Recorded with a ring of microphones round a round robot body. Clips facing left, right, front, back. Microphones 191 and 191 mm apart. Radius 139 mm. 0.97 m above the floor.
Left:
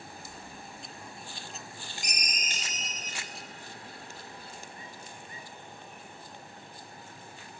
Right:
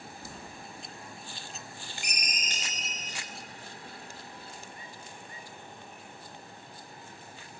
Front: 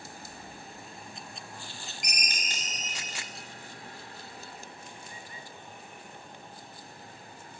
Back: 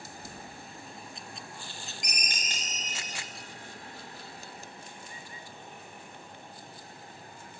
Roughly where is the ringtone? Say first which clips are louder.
Even, even; ahead left.